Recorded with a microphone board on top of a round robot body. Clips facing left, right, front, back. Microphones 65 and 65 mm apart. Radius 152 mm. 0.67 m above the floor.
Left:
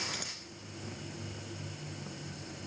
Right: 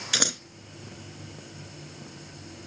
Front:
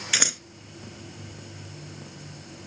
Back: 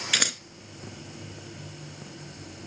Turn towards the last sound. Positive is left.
turn(degrees=-85)